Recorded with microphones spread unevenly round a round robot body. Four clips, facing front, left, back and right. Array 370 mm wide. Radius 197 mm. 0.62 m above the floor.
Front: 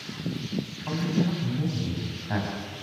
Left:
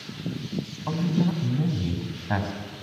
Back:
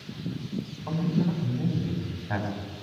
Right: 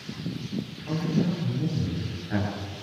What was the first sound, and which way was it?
A man speaking, 85° left.